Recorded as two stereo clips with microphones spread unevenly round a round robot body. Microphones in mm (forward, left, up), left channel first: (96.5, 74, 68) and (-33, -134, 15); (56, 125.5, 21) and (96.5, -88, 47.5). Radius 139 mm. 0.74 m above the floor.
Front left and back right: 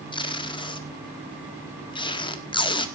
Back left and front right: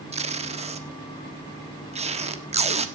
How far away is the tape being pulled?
About 1.7 m.